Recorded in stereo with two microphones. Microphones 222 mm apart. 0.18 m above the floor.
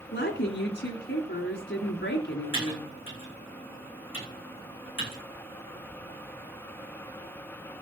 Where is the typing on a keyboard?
10° right (ahead or behind), 9 m.